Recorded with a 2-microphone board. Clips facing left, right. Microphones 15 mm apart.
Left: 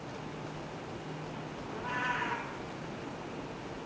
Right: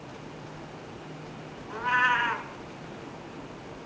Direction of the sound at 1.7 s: 50° right (ahead or behind).